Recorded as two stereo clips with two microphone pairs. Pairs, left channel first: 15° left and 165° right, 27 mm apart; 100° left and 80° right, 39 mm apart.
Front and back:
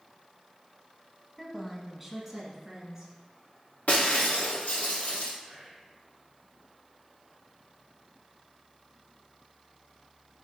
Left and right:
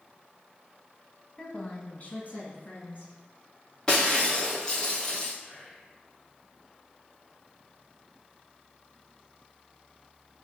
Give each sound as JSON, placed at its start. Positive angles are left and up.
{"t": 1.4, "sound": "a woman speaking", "azimuth_deg": 95, "distance_m": 1.2}
{"t": 3.9, "sound": "breaking glass", "azimuth_deg": 30, "distance_m": 1.8}
{"t": 5.4, "sound": "whispering", "azimuth_deg": 165, "distance_m": 3.0}